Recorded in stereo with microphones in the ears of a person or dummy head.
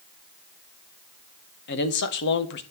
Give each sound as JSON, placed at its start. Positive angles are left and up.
{"t": 1.7, "sound": "a man speaking", "side_deg": 60, "distance_m": 2.0}